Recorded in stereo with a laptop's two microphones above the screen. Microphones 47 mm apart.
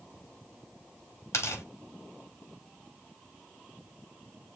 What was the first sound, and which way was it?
Tearing paper, 70° left (ahead or behind).